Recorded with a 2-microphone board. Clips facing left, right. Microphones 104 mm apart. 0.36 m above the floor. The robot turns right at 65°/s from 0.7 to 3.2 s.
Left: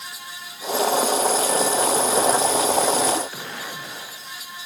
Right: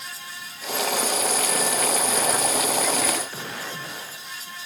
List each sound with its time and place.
Only background noise.